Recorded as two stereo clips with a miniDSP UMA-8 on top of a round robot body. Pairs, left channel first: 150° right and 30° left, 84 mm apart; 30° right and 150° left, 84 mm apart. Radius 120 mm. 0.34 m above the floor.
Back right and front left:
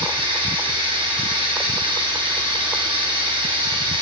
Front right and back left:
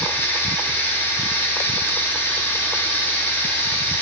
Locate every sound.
0.0 s running water: 35° left, 3 m